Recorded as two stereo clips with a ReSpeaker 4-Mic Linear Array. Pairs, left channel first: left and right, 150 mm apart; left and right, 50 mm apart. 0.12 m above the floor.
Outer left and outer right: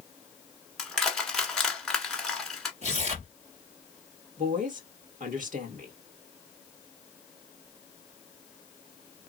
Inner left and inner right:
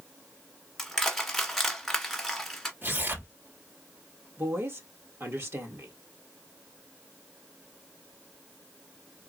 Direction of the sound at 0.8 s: 5° left (ahead or behind).